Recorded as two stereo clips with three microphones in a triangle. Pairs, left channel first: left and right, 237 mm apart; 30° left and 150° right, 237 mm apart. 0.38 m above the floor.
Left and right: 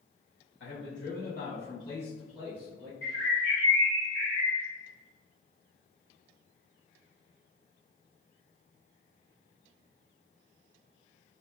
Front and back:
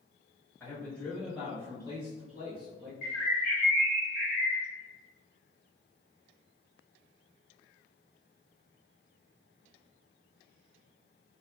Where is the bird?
95° left, 1.7 m.